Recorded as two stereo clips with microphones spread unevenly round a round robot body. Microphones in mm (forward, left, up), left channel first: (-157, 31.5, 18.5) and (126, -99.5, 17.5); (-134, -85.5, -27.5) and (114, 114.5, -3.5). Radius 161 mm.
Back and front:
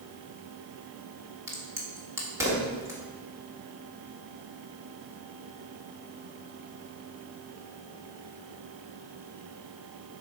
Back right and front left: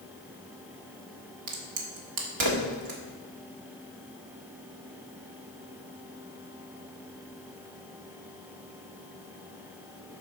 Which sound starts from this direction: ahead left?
A crack, at 1.5 s.